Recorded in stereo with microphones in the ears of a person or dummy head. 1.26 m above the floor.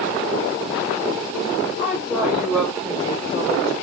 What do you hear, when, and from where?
1.8 s a woman speaking: 5° right (ahead or behind), 1.9 m; by 3.7 s 35° right (ahead or behind), 1.2 m